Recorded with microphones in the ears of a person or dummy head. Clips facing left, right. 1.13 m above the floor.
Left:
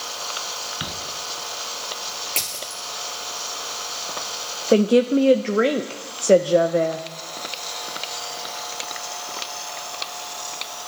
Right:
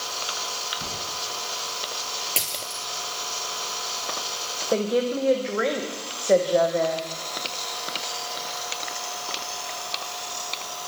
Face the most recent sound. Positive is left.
turn(degrees=40)  # may be behind; listen again after turning